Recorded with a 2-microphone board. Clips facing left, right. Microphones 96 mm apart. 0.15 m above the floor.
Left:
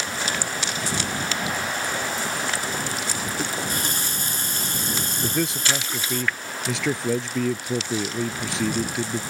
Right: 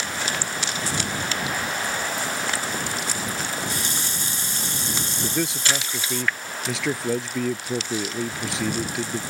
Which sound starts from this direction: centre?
A man speaking, at 5.2 s.